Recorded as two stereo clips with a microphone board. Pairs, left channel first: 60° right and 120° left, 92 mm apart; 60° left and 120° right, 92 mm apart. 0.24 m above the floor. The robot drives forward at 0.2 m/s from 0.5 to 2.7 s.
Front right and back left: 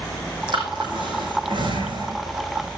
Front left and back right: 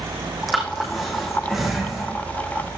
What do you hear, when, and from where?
0.5 s breathing: 150° left, 6 m